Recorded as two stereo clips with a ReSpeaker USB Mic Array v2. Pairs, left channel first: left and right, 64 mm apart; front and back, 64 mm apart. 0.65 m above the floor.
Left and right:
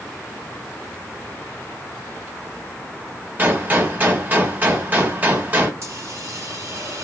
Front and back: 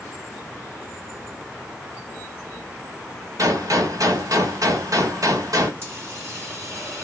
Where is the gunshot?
150° right, 1.3 m.